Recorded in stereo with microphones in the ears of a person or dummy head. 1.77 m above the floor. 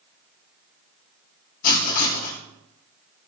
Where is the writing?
50° left (ahead or behind), 2.5 m.